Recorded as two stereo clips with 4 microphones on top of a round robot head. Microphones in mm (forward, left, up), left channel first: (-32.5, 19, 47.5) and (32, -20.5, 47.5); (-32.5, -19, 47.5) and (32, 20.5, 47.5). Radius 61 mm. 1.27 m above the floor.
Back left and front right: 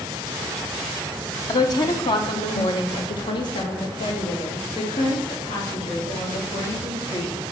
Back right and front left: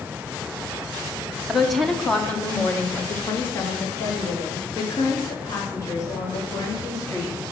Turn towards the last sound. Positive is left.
turn(degrees=165)